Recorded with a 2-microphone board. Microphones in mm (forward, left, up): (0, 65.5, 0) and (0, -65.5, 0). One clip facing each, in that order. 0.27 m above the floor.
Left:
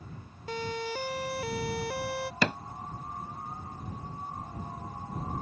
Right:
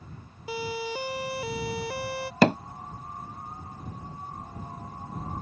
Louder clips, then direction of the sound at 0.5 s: Right 2 dB; 10° right (ahead or behind).